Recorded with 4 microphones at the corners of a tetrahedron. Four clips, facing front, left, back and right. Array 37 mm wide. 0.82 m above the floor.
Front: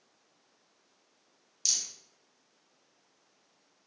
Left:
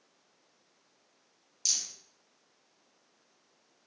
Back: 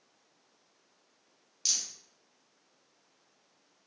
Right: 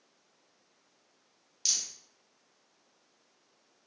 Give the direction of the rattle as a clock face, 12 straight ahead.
4 o'clock.